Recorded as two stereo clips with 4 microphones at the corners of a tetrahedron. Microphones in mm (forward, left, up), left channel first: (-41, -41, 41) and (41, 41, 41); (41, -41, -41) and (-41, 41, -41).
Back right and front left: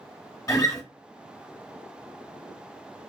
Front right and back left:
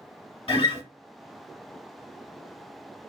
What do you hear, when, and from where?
0.5 s a guitar: 75° right, 1.0 m